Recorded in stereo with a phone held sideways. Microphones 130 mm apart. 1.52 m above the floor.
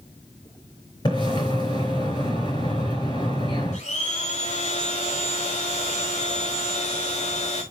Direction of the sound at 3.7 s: 60° left (ahead or behind).